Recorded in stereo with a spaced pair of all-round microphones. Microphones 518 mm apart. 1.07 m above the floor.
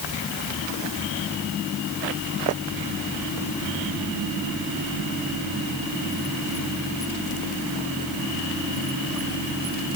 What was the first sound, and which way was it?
Only background noise.